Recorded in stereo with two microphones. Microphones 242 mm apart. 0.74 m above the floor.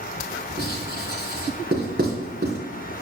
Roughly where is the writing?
Right.